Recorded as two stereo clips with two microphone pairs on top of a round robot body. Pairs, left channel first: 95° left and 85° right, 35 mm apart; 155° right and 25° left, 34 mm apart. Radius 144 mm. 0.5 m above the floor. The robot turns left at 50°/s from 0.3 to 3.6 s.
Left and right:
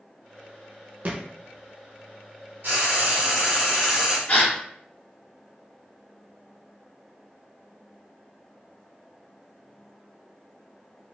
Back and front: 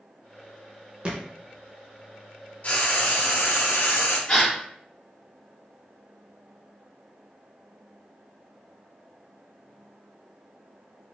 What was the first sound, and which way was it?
A thud, 40° right.